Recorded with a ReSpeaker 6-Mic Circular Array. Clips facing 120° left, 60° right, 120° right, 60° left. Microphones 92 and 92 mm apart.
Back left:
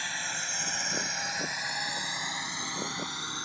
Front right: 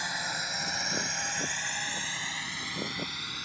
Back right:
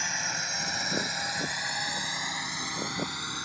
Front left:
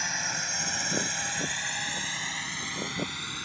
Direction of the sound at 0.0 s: 30° right.